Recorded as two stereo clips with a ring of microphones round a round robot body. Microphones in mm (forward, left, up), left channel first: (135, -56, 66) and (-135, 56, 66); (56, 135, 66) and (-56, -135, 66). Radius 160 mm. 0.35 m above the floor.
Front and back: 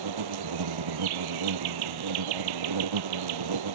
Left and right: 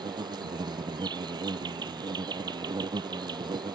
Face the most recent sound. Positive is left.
turn(degrees=170)